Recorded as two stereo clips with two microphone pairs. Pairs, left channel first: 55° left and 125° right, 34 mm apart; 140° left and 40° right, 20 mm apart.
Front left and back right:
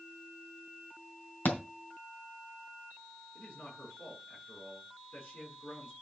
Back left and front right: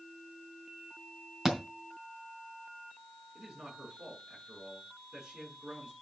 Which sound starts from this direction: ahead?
A man speaking, at 3.4 s.